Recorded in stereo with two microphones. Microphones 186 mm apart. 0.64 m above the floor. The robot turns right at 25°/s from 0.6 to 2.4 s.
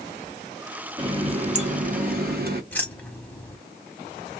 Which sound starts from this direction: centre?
Keys jangling, at 2.7 s.